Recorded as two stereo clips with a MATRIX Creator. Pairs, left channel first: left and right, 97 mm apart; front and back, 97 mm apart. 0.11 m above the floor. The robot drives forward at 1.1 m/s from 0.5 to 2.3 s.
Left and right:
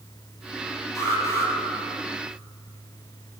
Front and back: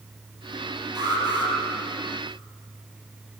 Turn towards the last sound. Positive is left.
turn(degrees=150)